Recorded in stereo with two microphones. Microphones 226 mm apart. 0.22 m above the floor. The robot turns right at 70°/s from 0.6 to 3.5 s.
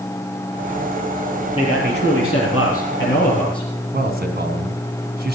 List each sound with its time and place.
1.6 s a man speaking: 20° left, 6 m; by 3.7 s 155° left, 6 m
3.9 s a man speaking: 45° right (ahead or behind), 1.9 m